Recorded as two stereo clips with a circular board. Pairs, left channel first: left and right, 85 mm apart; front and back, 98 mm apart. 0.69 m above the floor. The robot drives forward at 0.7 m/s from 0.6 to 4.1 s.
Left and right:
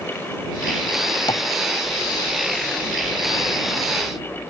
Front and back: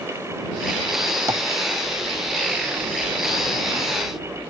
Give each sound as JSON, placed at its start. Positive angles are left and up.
{"t": 1.3, "sound": "tapping", "azimuth_deg": 125}